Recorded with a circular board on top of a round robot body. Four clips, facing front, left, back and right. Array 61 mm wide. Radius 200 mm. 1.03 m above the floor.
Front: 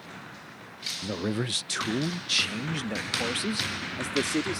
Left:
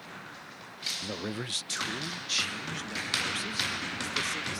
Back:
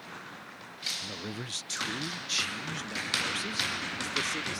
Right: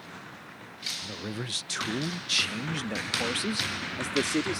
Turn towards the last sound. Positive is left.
turn(degrees=-50)